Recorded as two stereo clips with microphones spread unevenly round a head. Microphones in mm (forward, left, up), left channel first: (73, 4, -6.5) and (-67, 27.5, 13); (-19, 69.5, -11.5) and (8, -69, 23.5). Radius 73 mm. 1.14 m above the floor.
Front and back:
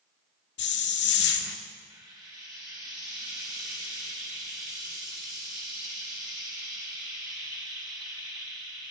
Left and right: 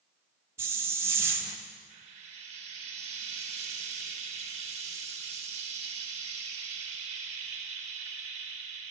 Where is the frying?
125° right, 1.4 m.